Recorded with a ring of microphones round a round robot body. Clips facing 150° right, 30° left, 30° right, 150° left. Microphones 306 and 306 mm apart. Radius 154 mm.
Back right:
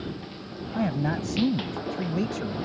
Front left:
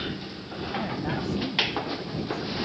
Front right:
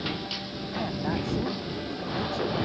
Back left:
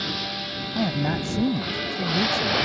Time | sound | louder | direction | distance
0.8 | a man speaking | back right 5 dB, back left 5 dB | straight behind | ?